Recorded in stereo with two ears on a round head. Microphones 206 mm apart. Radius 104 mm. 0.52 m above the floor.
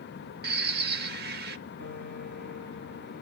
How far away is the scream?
No scream in this recording.